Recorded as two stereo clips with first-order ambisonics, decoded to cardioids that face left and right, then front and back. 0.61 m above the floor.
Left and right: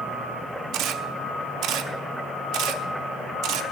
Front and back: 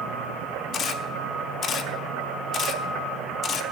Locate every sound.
0.7 s a camera shutter: 60° right, 0.9 m